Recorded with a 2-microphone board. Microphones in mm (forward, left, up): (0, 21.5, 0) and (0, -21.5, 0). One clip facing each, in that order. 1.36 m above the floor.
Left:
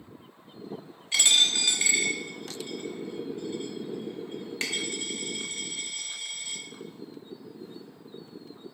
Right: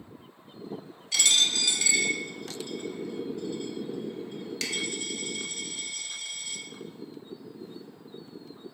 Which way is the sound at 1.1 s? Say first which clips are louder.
Left 2 dB; 30° left (ahead or behind).